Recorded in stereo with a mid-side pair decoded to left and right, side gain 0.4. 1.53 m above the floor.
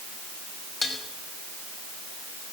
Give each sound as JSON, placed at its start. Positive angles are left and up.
{"t": 0.8, "sound": "dishes clattering", "azimuth_deg": 30, "distance_m": 5.0}